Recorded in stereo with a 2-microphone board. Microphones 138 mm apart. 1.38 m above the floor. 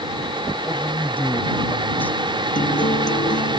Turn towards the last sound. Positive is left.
turn(degrees=70)  # may be behind; listen again after turning